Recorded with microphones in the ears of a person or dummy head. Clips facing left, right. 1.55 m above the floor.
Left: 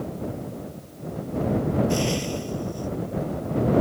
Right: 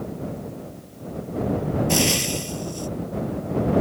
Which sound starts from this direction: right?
Frying, at 1.9 s.